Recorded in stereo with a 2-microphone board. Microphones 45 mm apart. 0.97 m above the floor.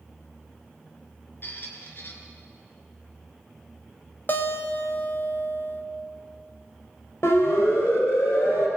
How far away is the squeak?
About 3.5 m.